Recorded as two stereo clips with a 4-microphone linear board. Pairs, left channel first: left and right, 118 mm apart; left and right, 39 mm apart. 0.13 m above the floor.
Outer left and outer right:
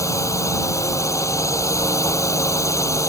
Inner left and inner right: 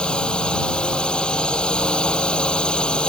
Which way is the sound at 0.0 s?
25° left (ahead or behind).